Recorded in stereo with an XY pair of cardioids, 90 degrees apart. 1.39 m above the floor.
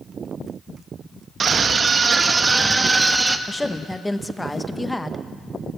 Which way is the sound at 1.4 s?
50° right.